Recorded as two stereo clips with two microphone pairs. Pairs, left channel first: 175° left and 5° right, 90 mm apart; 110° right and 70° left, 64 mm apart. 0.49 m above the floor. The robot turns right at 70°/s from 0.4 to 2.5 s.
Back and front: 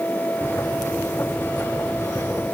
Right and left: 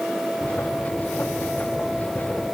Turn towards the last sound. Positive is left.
No sound to turn to.